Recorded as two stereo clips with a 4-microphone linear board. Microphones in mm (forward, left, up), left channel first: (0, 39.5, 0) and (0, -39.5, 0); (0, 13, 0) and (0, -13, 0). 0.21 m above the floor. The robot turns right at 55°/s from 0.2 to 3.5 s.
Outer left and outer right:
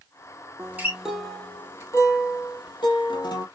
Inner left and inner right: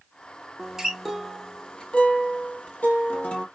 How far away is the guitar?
About 1.0 m.